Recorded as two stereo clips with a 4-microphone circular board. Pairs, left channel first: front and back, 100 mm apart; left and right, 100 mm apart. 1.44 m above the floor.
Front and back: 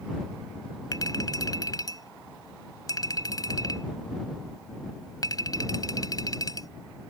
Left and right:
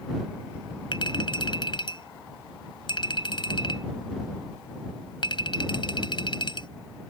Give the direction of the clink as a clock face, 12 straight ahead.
10 o'clock.